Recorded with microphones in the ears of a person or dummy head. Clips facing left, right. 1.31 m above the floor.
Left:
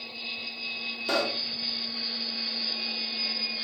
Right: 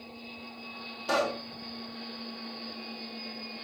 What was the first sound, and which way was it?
A pop, 35° left (ahead or behind).